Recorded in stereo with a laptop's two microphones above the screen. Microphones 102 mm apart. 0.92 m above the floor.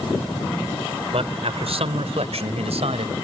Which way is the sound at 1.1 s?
70° right (ahead or behind).